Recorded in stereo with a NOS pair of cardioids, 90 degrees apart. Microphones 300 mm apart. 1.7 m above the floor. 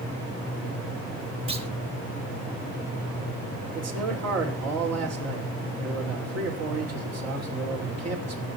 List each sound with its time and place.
1.5 s a clunk: 20° right, 2.5 m
3.8 s a man speaking: 50° right, 6 m